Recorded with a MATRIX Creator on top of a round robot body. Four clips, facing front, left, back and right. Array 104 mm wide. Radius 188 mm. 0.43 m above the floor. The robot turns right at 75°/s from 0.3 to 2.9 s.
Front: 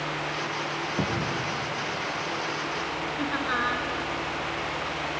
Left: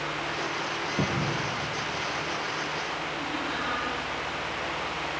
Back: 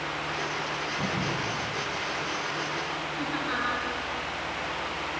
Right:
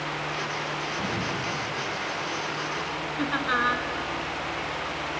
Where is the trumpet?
I don't hear a trumpet.